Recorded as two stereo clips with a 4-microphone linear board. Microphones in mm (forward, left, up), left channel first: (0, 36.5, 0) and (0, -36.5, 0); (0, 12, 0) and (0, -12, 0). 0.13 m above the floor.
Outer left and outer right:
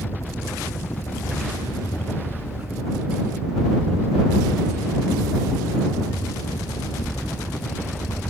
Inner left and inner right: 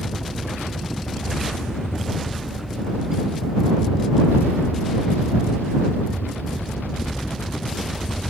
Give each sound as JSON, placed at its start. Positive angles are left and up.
{"t": 0.0, "sound": "a helicopter", "side_deg": 50}